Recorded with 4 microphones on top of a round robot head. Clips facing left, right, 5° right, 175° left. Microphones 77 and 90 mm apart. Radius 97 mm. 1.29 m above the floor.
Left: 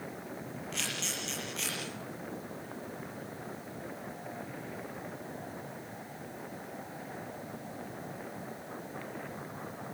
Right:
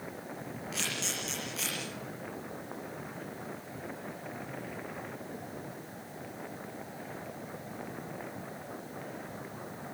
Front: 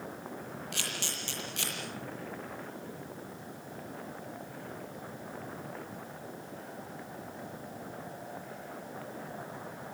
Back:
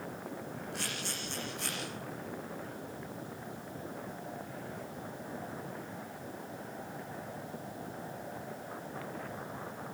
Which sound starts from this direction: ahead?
A camera shutter, at 0.7 s.